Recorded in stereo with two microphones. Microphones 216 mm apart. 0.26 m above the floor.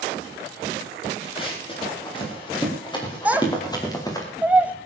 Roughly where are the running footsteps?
Left.